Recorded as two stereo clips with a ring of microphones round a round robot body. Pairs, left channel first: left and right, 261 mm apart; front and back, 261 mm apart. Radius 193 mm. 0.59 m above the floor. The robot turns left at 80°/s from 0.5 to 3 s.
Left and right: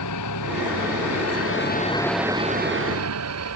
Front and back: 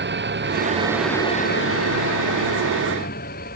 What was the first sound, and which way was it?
An engine running, 135° left.